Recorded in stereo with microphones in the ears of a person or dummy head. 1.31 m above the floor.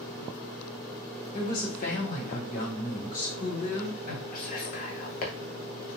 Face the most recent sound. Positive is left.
turn(degrees=45)  # may be behind; listen again after turning